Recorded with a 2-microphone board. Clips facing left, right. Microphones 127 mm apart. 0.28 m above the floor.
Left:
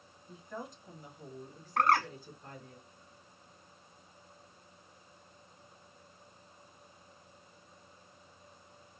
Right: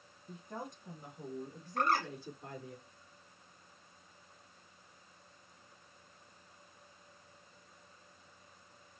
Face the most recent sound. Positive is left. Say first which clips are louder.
# left 4 dB
turn(degrees=70)  # may be behind; listen again after turning